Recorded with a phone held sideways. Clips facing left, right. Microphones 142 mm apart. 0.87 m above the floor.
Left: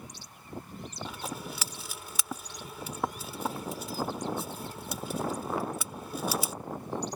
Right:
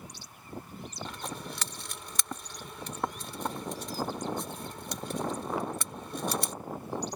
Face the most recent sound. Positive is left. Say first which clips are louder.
# left 2 dB
turn(degrees=5)  # may be behind; listen again after turning